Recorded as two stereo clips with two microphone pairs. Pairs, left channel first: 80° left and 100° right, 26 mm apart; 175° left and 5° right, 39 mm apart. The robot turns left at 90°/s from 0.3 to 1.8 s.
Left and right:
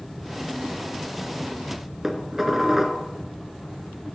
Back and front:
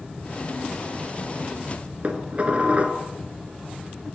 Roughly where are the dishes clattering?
Ahead right.